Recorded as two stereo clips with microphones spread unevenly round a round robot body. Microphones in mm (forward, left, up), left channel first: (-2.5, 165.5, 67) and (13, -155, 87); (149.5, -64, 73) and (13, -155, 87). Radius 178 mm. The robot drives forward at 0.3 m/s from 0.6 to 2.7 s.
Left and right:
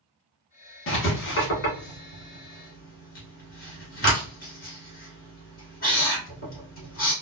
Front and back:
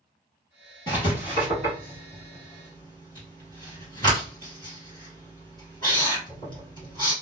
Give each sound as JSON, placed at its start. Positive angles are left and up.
{"t": 0.9, "sound": "writing", "azimuth_deg": 145, "distance_m": 1.0}